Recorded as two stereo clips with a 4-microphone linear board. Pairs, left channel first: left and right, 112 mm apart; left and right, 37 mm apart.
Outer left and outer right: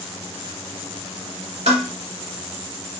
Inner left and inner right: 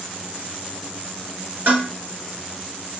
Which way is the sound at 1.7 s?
65° right (ahead or behind).